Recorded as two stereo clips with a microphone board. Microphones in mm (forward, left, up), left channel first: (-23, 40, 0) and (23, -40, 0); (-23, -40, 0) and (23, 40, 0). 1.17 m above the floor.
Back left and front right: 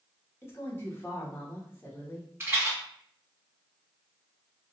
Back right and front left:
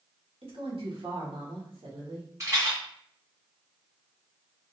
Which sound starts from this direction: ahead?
A rattle, at 2.4 s.